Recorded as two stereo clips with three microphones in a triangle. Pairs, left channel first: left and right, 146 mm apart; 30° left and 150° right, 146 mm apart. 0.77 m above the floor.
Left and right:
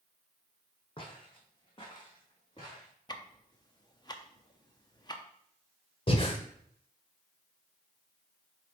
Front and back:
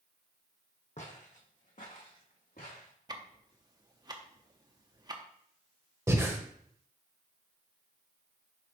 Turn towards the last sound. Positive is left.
turn(degrees=140)